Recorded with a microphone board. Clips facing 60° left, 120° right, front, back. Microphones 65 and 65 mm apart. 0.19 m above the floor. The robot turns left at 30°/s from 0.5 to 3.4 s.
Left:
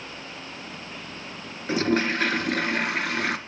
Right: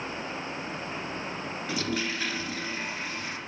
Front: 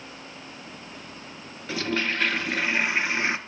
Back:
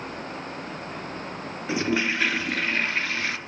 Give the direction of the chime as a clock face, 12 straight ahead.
No chime in this recording.